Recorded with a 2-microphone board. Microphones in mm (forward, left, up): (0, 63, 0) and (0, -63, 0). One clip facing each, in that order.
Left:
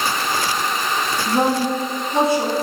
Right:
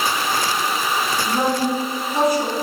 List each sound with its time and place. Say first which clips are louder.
1.3 s a woman speaking: left 3 dB; 30° left (ahead or behind), 1.8 m